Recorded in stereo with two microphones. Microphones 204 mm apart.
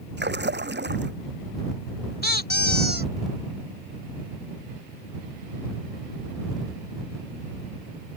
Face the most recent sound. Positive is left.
turn(degrees=55)  # may be behind; listen again after turning